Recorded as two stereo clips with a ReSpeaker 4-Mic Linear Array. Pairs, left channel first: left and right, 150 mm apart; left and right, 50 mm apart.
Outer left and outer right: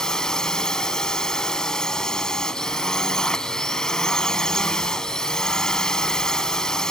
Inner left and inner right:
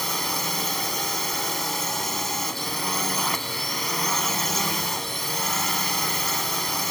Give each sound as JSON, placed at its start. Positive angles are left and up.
{"t": 0.0, "sound": "a drone", "side_deg": 5}